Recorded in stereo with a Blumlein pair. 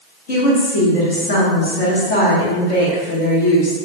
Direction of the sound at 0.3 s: 50° left.